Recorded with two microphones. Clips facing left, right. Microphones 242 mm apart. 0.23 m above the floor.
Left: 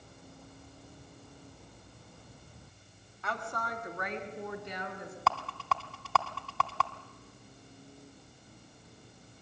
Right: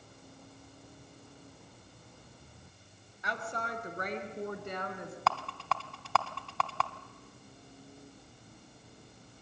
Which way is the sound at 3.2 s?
15° right (ahead or behind).